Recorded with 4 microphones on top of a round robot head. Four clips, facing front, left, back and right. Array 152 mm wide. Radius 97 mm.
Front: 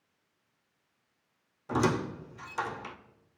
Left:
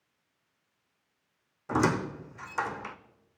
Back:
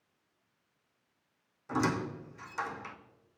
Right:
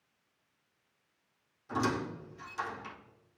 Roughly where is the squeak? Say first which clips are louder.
Left 5 dB, front 3 dB; ahead left.